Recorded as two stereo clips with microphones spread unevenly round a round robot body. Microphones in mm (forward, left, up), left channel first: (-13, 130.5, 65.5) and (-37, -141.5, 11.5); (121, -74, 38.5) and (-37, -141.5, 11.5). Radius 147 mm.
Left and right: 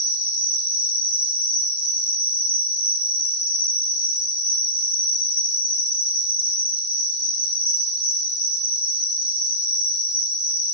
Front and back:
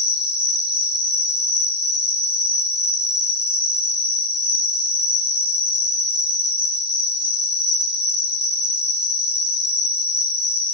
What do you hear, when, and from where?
0.0 s an insect: 155° left, 3.5 m